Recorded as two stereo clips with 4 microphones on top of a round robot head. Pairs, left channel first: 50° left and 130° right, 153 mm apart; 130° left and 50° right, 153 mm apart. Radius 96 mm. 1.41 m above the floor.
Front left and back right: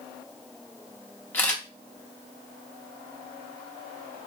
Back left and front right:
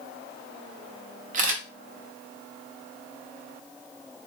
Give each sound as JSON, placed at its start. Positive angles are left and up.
{"t": 1.3, "sound": "a camera shutter", "azimuth_deg": -25, "distance_m": 0.7}